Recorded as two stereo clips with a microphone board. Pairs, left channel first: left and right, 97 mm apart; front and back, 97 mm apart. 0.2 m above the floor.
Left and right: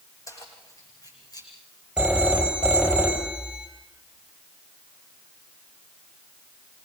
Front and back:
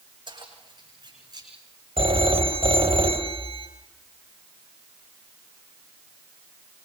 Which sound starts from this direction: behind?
A phone ringing, at 2.0 s.